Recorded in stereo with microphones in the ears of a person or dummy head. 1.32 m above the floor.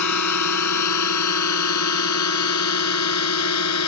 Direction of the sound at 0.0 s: 80° left.